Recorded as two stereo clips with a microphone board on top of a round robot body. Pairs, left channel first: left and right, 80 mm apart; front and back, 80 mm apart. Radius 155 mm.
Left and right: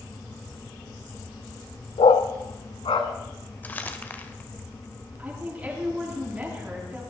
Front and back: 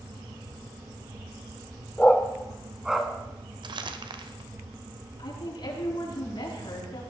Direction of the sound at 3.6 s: 160° left.